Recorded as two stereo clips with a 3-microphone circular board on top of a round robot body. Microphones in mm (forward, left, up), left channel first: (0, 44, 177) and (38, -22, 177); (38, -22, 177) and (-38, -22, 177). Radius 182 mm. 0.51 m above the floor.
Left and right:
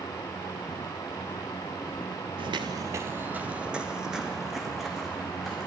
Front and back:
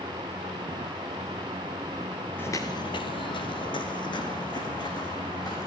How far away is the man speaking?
I don't hear a man speaking.